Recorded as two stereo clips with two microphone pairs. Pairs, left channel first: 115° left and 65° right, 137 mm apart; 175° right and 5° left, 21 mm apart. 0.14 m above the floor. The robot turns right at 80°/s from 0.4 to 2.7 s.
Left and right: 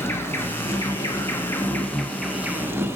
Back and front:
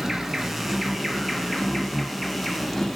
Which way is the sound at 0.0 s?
70° left.